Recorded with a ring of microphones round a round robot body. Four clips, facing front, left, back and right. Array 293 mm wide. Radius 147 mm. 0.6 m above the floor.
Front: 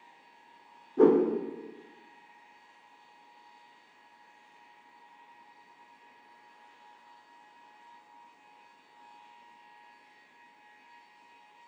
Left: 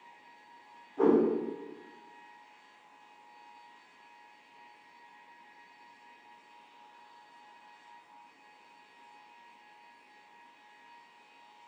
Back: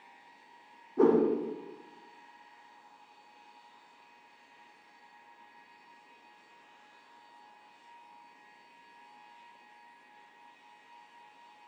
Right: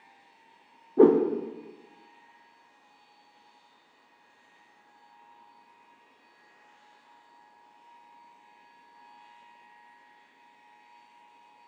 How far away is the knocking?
I don't hear knocking.